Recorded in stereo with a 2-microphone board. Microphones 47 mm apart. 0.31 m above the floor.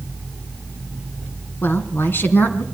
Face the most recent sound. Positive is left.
turn(degrees=45)  # may be behind; listen again after turning